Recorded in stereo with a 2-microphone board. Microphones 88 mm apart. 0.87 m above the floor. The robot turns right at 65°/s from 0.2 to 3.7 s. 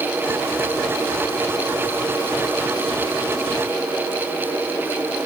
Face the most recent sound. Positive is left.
No sound to turn to.